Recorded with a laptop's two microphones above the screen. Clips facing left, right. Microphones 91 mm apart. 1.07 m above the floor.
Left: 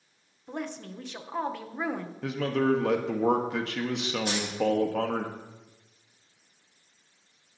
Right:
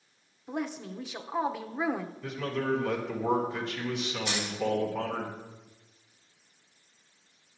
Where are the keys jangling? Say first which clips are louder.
Left 3 dB; 45° left (ahead or behind), 5 m.